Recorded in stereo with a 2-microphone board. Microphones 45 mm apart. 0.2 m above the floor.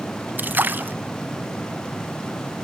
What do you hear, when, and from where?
0.4 s a splash: 40° right (ahead or behind), 0.9 m